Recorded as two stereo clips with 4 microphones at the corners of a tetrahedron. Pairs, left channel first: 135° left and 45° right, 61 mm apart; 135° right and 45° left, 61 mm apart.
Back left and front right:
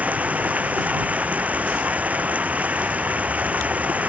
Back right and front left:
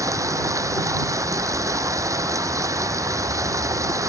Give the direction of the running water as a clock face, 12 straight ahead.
11 o'clock.